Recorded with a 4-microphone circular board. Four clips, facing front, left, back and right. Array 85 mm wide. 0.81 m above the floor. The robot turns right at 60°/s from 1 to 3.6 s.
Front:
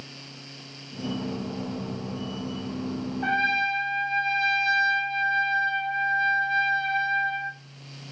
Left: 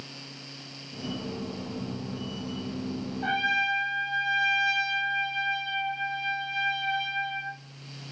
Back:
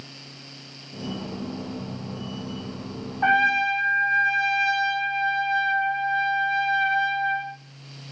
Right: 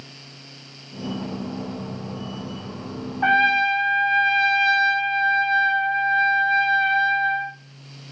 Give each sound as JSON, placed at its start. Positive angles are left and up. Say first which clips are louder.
{"t": 3.2, "sound": "a trumpet", "louder": "right 9 dB, back 5 dB", "azimuth_deg": -125, "distance_m": 2.0}